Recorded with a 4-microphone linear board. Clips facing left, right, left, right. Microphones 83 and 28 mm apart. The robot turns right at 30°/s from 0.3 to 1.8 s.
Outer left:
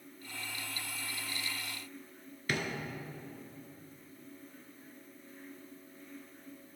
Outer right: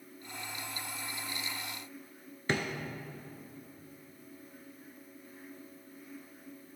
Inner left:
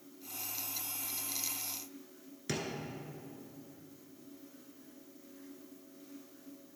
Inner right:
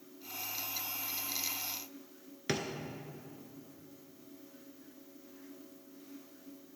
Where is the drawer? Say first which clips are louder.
Outer right 3 dB, inner right 3 dB; 30° right (ahead or behind), 0.6 m.